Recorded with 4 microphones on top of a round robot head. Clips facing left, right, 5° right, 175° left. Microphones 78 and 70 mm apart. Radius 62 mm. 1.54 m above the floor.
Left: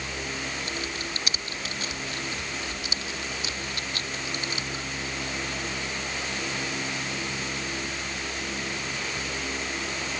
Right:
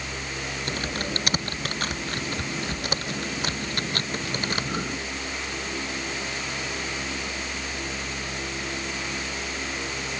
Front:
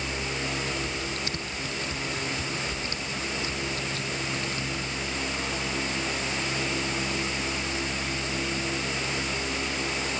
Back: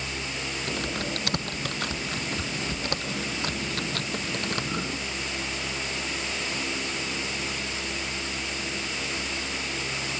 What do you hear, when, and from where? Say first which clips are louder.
0.7 s typing on a keyboard: right 4 dB, back 1 dB; 130° right